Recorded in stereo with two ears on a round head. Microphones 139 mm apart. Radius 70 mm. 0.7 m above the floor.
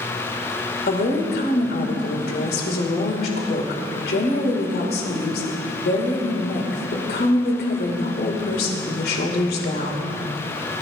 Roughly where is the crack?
No crack in this recording.